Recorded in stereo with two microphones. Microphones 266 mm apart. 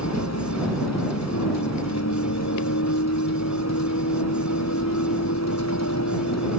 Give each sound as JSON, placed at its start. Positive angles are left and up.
{"t": 0.0, "sound": "a vehicle", "side_deg": 75}